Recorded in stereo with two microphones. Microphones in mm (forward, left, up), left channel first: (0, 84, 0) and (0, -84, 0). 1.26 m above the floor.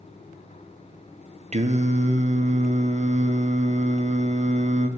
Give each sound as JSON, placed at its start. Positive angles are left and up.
{"t": 1.5, "sound": "singing", "side_deg": -45, "distance_m": 0.6}